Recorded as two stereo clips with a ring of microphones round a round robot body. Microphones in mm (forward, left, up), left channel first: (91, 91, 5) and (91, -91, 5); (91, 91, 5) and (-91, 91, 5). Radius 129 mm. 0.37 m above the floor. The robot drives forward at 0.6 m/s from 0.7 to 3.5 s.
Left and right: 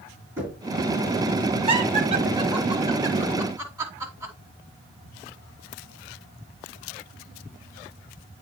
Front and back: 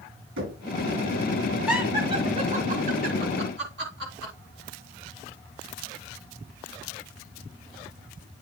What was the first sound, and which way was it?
Knocking, 170° right.